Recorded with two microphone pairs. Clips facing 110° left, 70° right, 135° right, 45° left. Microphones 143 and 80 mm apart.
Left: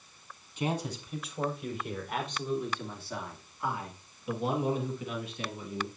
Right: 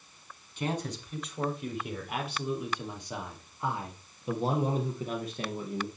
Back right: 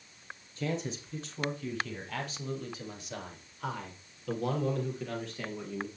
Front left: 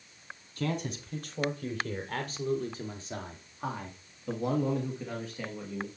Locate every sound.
0.6 s a man speaking: 35° left, 3 m; by 5.9 s 40° right, 3 m